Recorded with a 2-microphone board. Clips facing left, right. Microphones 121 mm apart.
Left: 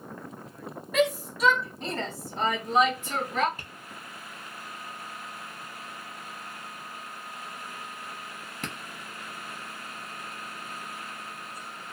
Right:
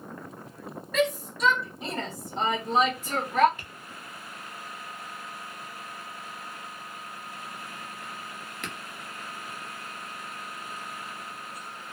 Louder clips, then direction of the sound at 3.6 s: Even; 35° left (ahead or behind).